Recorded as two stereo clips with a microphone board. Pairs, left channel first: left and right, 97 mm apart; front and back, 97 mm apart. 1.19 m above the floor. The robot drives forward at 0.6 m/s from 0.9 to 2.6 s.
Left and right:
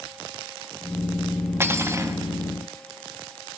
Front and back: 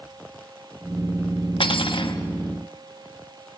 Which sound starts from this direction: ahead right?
Cutlery clinking, at 1.6 s.